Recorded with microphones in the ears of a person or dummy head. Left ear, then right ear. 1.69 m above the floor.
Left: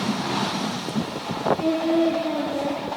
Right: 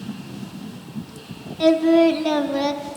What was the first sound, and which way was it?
Singing, 65° right (ahead or behind).